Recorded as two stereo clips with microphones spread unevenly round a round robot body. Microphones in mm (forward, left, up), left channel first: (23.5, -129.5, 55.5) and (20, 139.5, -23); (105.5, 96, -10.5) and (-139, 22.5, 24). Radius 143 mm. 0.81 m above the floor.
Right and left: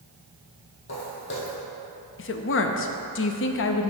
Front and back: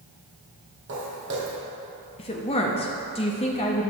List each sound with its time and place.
0.9 s footsteps: 125° right, 2.0 m
2.2 s a woman speaking: 40° right, 0.7 m